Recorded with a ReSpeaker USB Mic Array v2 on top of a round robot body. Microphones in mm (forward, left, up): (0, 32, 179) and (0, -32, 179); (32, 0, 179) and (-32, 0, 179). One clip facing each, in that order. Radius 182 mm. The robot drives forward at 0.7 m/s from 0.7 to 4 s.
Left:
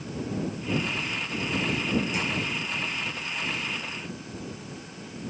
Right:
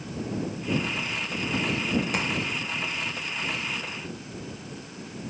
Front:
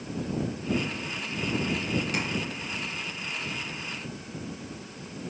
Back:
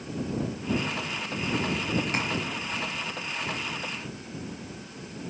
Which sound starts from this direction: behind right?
Tapping, at 2.1 s.